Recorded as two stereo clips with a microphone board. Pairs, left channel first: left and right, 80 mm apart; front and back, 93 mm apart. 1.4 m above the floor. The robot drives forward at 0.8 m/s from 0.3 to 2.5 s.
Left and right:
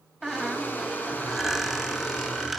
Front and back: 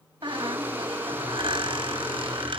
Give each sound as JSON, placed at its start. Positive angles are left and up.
{"t": 0.2, "sound": "a squeak", "azimuth_deg": -175, "distance_m": 1.3}